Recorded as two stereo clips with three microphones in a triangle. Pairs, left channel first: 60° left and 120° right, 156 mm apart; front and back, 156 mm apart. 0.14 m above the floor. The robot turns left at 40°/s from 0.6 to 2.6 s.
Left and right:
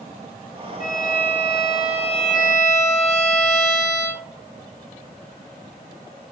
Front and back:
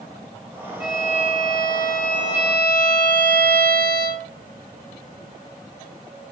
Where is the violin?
95° left, 3 m; by 4.3 s 20° left, 3 m.